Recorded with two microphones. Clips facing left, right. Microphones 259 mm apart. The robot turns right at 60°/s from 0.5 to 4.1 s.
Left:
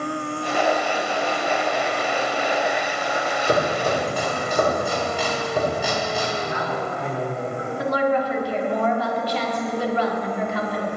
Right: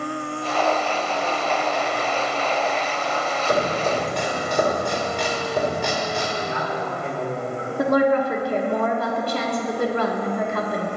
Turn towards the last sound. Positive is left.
turn(degrees=-50)  # may be behind; listen again after turning